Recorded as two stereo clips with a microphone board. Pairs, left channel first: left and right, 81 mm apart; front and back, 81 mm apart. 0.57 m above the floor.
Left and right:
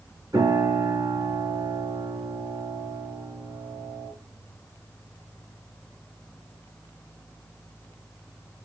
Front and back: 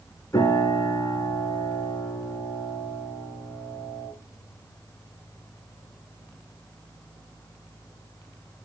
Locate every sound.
0.3 s a piano: 50° right, 7 m